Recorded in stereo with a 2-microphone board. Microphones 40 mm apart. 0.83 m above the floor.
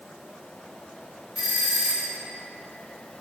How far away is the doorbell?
About 1.3 m.